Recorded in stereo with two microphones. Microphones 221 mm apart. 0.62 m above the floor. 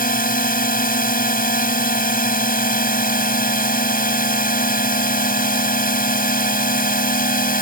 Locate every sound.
0.0 s a drone: 40° left (ahead or behind)